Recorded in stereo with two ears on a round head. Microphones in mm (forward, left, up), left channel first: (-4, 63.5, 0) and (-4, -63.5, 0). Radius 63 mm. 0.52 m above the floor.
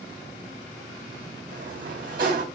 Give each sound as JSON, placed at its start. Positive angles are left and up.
{"t": 1.5, "sound": "a sliding door", "side_deg": -65, "distance_m": 4.0}